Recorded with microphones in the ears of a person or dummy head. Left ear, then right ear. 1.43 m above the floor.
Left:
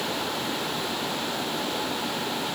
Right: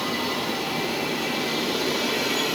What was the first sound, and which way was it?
Only background noise.